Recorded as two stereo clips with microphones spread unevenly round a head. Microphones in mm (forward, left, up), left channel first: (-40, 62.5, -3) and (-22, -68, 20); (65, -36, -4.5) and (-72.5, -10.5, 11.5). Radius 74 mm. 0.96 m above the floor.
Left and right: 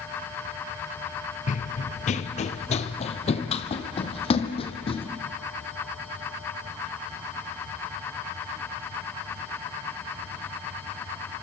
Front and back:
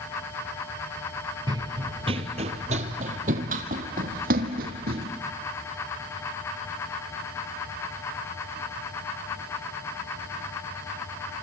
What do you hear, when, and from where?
1.5 s running footsteps: 115° left, 1.3 m; by 5.1 s 150° left, 3 m